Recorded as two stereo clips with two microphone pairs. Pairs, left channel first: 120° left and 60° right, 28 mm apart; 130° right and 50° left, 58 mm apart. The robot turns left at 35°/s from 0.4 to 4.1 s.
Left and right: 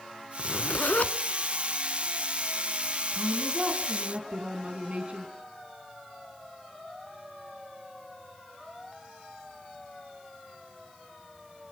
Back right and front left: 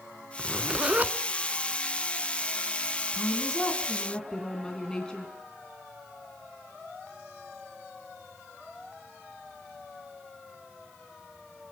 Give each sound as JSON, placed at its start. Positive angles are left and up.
{"t": 0.4, "sound": "a zipper", "azimuth_deg": 125, "distance_m": 0.7}
{"t": 3.1, "sound": "a woman speaking", "azimuth_deg": -25, "distance_m": 2.0}